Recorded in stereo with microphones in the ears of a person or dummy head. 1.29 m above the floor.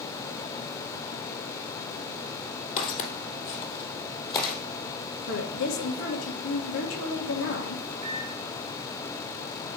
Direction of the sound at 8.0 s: 30° right (ahead or behind).